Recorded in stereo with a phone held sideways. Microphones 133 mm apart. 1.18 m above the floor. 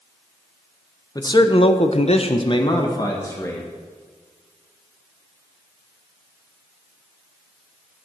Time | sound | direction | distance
1.1 | a man speaking | 30° left (ahead or behind) | 1.2 m